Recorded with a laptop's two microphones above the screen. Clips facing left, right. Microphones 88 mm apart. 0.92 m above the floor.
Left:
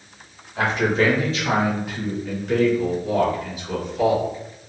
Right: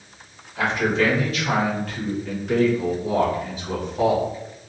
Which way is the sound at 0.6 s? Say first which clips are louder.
Left 1 dB; 45° left (ahead or behind).